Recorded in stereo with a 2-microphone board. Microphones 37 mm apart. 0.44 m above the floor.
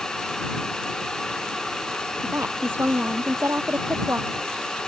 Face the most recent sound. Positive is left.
turn(degrees=-80)